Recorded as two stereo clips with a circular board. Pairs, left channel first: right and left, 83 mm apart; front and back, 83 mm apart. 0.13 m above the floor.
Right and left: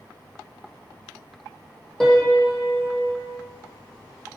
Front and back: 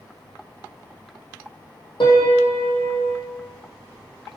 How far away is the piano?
About 0.8 m.